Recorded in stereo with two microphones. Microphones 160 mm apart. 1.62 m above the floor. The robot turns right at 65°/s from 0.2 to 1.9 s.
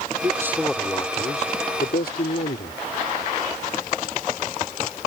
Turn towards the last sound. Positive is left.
turn(degrees=80)